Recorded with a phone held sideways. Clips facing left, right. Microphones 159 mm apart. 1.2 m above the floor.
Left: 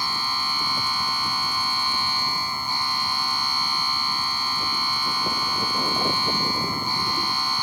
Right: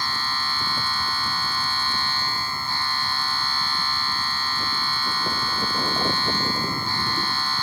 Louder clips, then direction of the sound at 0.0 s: Even; 15° left (ahead or behind).